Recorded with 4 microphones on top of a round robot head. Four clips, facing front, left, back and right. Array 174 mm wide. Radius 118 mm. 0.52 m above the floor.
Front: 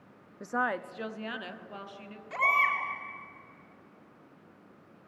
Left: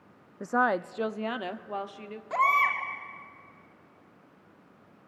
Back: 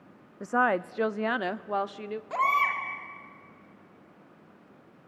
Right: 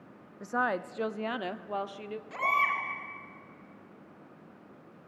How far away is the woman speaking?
About 0.8 m.